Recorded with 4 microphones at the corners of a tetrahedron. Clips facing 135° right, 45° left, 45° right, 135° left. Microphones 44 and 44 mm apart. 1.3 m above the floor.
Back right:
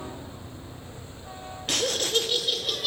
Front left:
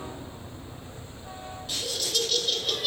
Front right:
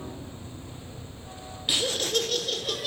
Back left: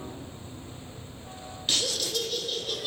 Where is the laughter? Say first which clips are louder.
Back right 6 dB, front right 3 dB; 125° right, 0.7 m; by 2.9 s 45° right, 1.2 m.